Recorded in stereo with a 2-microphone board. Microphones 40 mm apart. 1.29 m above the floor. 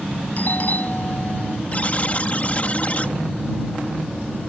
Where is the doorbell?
45° left (ahead or behind).